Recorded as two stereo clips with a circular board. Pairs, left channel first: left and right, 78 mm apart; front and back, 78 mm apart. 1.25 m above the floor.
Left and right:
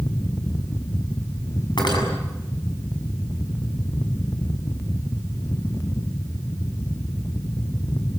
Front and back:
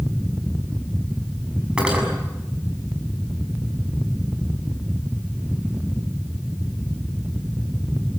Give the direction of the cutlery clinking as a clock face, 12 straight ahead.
9 o'clock.